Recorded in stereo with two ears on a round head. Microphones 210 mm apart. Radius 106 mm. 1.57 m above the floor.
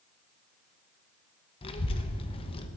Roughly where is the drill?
No drill in this recording.